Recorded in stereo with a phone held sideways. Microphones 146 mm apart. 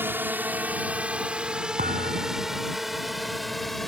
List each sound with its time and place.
0.0 s a drone: 15° right (ahead or behind); by 3.9 s centre (ahead or behind)
1.8 s a thud: 70° right (ahead or behind)